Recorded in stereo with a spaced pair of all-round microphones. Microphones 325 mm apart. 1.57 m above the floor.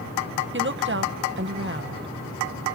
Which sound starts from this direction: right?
A woman speaking, at 0.5 s.